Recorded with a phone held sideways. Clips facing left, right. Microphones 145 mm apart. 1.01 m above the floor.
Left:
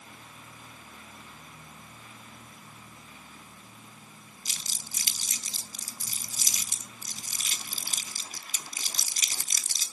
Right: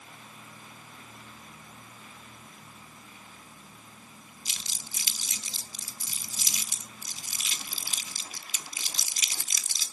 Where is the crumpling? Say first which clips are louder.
Left 1 dB; 45° left (ahead or behind), 1.3 m.